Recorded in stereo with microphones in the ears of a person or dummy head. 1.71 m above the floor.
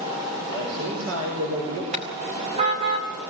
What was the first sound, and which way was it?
A man speaking, 70° right (ahead or behind).